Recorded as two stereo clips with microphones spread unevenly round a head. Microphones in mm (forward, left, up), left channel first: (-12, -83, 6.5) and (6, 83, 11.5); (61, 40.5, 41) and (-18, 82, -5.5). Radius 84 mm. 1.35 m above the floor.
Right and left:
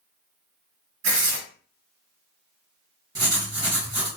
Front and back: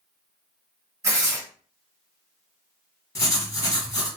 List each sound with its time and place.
1.0 s tearing paper: 90° left, 1.4 m
3.1 s writing: 15° left, 1.4 m